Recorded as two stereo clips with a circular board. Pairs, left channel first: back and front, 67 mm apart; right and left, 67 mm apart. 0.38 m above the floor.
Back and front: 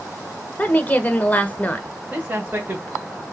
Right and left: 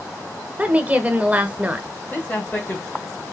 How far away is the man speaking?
About 1.5 m.